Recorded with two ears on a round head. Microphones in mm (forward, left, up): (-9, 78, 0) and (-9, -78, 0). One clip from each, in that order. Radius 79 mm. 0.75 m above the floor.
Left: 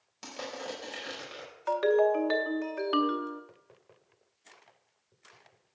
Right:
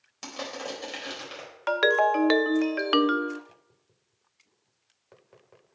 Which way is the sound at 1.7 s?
55° right (ahead or behind).